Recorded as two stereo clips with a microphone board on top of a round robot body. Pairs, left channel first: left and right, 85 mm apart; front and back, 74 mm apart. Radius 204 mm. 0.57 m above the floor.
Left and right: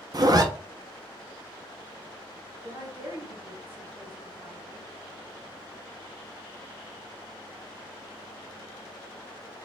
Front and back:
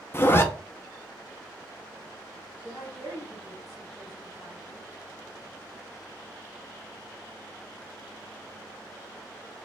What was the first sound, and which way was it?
A zipper, 55° right.